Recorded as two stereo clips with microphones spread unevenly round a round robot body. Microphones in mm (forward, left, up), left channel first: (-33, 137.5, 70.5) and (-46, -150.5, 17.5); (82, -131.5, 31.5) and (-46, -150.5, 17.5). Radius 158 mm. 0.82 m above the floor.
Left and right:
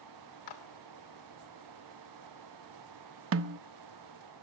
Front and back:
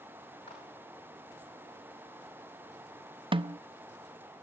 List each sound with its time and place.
0.5 s a clap: 80° left, 2.5 m
3.3 s a snare drum: 125° right, 0.6 m